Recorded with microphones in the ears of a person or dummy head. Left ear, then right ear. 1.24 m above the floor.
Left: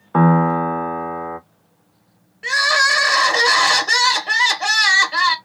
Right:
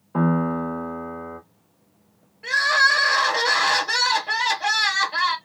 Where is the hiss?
No hiss in this recording.